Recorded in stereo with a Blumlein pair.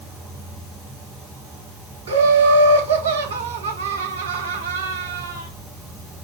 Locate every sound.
0.0 s an insect: 10° right, 2 m
2.1 s laughter: 70° right, 1.9 m